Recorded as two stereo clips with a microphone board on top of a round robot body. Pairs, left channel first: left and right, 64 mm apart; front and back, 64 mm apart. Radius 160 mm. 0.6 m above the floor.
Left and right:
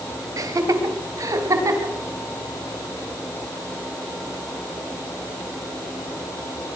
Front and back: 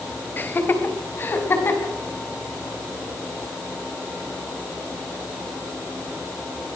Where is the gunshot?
I don't hear a gunshot.